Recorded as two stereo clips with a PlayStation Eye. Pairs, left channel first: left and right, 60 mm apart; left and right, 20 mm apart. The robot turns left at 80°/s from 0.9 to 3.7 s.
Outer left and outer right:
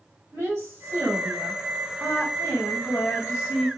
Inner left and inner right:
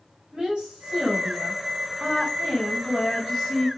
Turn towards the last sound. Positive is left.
turn(degrees=35)